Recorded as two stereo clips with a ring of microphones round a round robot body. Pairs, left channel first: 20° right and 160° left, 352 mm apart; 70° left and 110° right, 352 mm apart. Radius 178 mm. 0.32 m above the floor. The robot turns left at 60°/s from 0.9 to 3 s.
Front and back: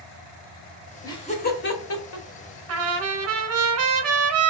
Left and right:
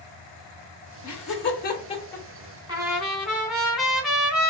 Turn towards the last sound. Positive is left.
turn(degrees=160)